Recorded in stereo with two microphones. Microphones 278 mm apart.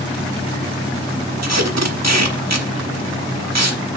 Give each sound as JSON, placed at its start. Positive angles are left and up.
{"t": 1.4, "sound": "tape being pulled", "side_deg": -75, "distance_m": 1.1}